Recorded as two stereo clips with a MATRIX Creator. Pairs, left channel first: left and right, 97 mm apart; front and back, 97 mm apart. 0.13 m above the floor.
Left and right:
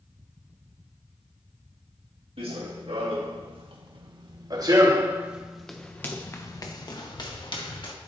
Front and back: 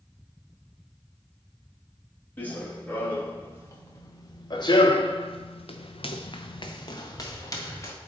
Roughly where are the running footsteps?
Right.